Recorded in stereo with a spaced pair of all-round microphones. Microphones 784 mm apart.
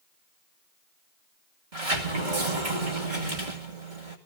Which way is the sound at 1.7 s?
75° right (ahead or behind).